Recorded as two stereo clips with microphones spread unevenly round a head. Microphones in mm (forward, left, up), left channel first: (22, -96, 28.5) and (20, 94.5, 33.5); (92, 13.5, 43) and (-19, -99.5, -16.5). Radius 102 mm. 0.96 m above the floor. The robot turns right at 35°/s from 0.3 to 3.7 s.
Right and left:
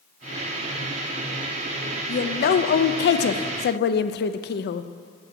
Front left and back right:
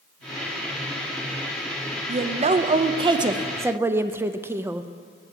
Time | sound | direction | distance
2.1 | a woman speaking | 130° right | 0.6 m